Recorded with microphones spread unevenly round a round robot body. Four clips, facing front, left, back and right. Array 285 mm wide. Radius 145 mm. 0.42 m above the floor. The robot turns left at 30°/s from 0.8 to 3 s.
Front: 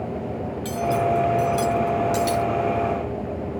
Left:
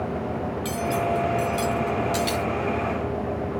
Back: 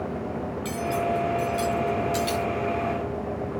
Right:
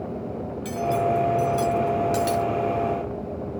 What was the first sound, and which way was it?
Cutlery clinking, 15° left.